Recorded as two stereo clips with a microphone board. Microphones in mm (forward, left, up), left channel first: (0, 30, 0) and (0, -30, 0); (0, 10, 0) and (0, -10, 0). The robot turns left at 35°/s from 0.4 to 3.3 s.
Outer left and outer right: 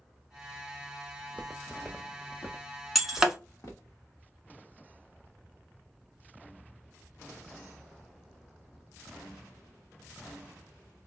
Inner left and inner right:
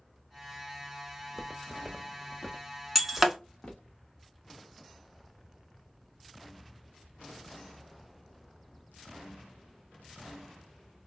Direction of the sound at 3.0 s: Centre (ahead or behind).